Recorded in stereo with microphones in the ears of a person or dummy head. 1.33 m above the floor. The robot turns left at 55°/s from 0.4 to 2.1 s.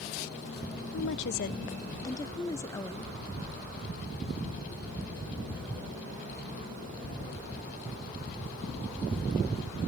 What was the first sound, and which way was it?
A woman speaking, 80° left.